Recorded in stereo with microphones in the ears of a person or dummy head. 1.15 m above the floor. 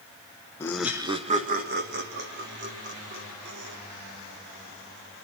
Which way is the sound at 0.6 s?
20° left (ahead or behind).